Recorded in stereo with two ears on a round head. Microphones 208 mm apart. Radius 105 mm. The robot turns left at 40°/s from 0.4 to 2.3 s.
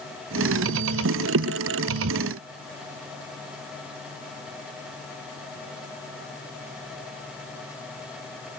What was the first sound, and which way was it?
Only background noise.